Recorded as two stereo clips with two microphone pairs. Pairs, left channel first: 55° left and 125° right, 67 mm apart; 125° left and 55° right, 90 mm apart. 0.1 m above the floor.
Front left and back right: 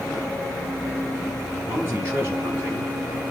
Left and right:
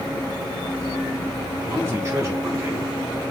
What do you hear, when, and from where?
1.7 s a man speaking: 90° right, 1.7 m